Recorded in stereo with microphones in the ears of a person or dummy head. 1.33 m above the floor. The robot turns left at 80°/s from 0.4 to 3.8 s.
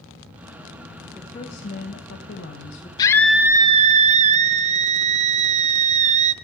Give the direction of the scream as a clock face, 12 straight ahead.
11 o'clock.